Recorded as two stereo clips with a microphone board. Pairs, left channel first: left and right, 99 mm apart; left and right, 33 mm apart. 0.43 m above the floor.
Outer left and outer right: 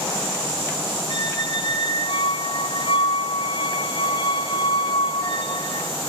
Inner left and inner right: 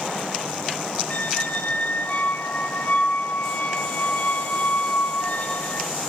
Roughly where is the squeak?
Left.